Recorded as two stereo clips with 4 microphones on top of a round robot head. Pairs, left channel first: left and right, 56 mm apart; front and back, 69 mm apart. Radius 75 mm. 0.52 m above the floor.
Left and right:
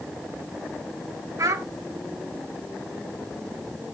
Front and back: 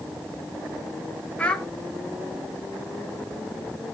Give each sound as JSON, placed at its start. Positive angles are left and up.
{"t": 1.4, "sound": "a child speaking", "azimuth_deg": -75, "distance_m": 1.2}